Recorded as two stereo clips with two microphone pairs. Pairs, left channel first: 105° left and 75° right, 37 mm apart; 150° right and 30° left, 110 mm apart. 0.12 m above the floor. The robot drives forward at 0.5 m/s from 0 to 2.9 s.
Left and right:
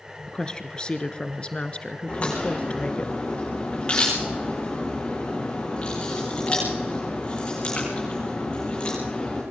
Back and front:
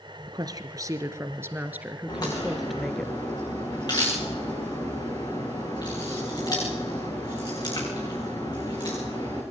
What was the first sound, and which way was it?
A woman speaking, 50° left.